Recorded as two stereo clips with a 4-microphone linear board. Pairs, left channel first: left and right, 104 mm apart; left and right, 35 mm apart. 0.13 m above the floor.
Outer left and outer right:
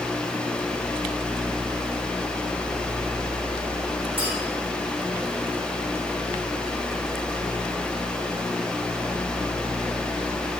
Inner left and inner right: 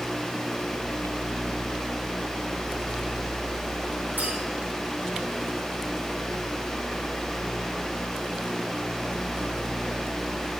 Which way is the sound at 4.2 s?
65° right (ahead or behind).